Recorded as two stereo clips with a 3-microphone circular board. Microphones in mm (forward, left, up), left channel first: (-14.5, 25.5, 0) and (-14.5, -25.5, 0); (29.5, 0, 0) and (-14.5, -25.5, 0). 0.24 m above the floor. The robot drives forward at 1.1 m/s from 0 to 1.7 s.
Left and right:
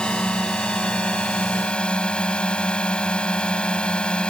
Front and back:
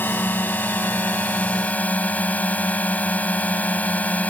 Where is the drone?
25° left; by 4.3 s 40° left.